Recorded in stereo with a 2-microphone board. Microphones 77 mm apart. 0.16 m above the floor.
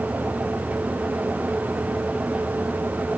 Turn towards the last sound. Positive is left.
No sound to turn to.